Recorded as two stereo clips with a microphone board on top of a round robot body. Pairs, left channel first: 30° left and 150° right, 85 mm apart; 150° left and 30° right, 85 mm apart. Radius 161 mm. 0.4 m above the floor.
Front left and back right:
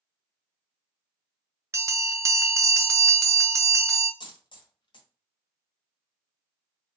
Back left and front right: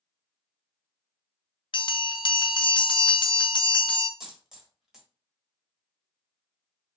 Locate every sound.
1.7 s a bell: 155° left, 0.6 m
4.2 s a dropped coin: 55° left, 1.3 m